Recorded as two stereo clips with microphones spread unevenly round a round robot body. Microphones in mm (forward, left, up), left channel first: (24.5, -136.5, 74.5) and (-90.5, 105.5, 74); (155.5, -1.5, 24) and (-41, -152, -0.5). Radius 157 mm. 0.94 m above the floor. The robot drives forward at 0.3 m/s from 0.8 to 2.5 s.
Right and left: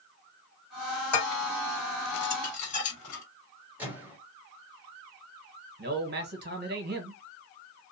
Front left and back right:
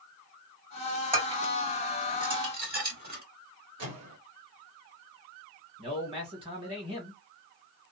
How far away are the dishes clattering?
About 1.7 m.